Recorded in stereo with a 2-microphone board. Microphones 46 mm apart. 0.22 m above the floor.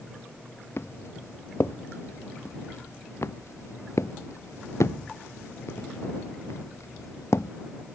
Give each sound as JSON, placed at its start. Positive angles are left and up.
{"t": 0.8, "sound": "footsteps", "side_deg": 65}